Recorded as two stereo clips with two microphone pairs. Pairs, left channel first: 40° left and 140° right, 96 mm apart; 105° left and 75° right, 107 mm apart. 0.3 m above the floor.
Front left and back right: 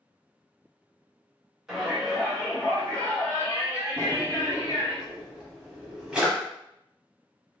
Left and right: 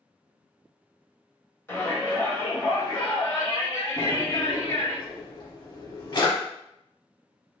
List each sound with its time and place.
1.7 s a shout: 145° left, 1.5 m; by 5.0 s 75° left, 2 m
4.0 s a drawer: 140° left, 0.9 m